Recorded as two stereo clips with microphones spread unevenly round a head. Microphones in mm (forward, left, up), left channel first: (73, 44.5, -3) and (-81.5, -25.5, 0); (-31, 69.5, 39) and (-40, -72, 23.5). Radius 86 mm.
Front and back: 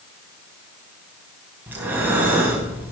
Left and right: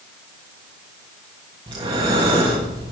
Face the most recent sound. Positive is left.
turn(degrees=-95)